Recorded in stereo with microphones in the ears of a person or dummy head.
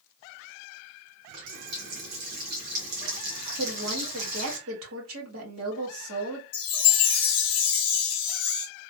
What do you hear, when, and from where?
1.3 s a running tap: 60° right (ahead or behind), 1.4 m
3.6 s a woman speaking: 85° right, 1.5 m
6.5 s a chime: 25° left (ahead or behind), 0.6 m